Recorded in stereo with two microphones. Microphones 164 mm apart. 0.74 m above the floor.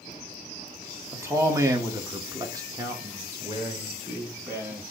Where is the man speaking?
15° right (ahead or behind), 1.2 m.